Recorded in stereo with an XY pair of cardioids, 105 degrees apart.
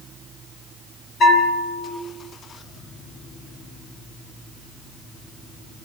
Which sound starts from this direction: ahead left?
A bell, at 1.2 s.